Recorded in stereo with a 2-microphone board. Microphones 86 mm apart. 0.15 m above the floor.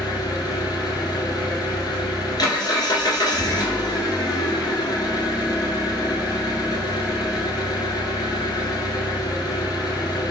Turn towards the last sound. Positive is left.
turn(degrees=55)  # may be behind; listen again after turning